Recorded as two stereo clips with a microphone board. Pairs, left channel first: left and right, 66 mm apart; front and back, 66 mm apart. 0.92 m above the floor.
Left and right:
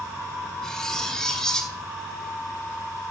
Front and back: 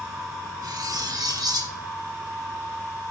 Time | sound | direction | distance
0.6 | cutlery clinking | 170° left | 1.1 m